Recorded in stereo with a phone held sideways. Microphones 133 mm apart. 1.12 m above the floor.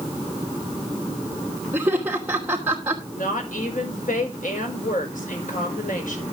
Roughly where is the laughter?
Centre.